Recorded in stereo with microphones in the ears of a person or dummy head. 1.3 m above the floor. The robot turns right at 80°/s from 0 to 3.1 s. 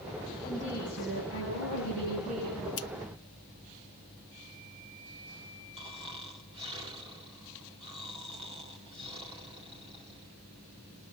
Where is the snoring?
25° right (ahead or behind), 2 m.